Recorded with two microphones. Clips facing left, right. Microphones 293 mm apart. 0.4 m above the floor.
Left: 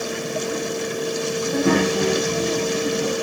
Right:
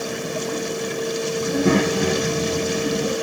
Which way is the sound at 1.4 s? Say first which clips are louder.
Even; 25° right (ahead or behind).